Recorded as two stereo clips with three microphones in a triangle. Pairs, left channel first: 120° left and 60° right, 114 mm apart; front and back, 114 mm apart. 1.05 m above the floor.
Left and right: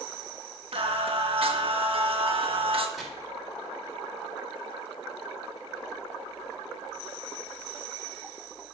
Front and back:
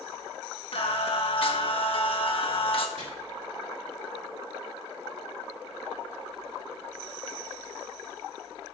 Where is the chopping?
150° right, 2.5 m.